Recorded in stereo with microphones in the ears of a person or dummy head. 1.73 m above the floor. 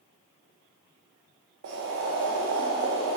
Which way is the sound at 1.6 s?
55° right (ahead or behind).